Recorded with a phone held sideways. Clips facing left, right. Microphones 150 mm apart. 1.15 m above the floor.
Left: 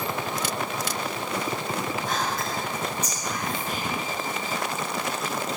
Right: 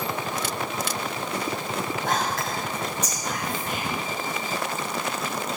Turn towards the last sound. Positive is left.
turn(degrees=-80)